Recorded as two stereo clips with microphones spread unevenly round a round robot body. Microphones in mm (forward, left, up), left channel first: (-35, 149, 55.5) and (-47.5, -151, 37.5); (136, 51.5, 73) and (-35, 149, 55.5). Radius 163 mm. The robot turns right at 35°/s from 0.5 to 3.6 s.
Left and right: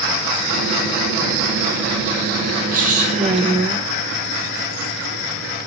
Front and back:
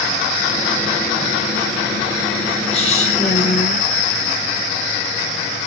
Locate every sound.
2.7 s a woman speaking: 70° right, 1.1 m; by 3.9 s 35° right, 1.1 m